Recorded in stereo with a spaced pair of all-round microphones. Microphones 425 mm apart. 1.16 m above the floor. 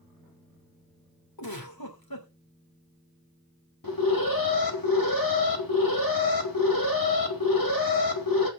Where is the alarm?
55° left (ahead or behind), 2.5 m.